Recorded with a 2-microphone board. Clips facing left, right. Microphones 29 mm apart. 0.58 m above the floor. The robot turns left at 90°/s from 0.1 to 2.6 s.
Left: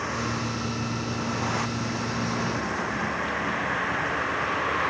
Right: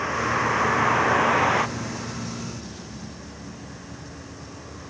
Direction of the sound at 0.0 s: 15° right (ahead or behind).